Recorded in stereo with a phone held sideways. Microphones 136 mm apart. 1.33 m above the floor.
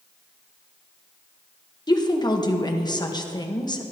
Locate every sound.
1.9 s a woman speaking: 30° left (ahead or behind), 1.2 m